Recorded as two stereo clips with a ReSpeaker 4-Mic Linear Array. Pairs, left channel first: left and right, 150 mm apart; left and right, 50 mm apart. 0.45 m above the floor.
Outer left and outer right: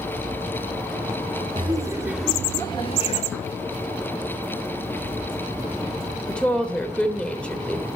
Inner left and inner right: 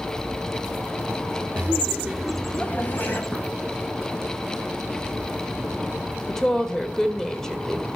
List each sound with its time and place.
1.6 s laughter: 35° right (ahead or behind), 1.2 m; by 3.2 s 45° left (ahead or behind), 1.5 m
3.3 s a gunshot: 5° left (ahead or behind), 2.0 m
6.3 s a woman speaking: 10° left (ahead or behind), 1.3 m